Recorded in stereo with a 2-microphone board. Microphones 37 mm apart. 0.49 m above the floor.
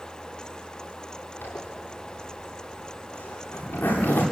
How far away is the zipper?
About 9 m.